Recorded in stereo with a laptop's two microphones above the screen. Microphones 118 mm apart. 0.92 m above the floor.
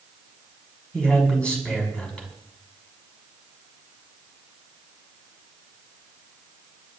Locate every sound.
0.9 s a man speaking: 10° left (ahead or behind), 7 m